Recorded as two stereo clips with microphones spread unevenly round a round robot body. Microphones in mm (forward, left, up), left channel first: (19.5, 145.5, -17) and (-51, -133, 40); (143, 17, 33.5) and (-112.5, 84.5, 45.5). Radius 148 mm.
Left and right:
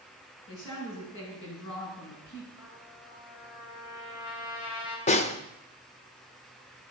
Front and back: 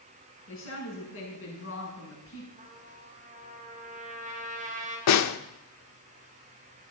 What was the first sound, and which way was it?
A woman speaking, 25° left.